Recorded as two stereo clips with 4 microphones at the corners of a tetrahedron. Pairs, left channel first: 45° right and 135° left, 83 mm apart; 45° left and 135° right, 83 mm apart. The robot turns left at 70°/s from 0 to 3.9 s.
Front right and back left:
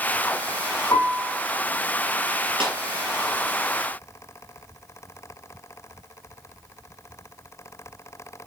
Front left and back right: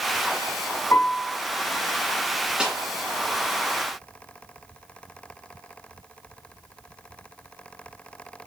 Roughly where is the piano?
Ahead.